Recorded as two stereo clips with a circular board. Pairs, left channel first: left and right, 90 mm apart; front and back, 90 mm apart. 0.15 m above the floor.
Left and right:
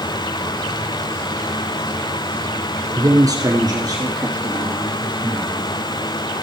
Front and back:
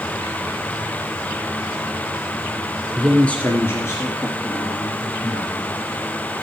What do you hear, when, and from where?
3.0 s a man speaking: 90° right, 1.5 m; by 5.7 s 35° right, 4.5 m